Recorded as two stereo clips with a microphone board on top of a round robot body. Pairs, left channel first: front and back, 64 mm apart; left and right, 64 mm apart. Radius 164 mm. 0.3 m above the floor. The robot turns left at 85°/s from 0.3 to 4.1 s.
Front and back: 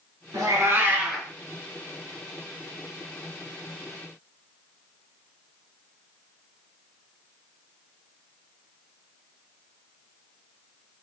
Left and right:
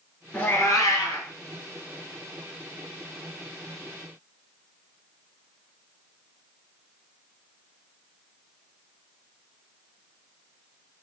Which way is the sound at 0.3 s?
160° left.